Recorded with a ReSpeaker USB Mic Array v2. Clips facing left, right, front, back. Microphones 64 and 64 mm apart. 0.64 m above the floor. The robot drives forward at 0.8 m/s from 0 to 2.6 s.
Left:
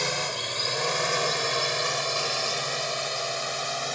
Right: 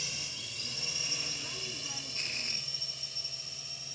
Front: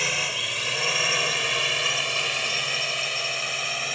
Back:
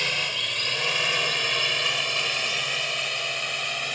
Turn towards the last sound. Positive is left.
turn(degrees=85)